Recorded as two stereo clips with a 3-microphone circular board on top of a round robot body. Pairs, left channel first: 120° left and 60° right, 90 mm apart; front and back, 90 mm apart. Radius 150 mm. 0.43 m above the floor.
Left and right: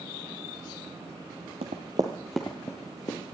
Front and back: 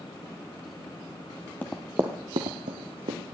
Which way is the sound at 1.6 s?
70° right.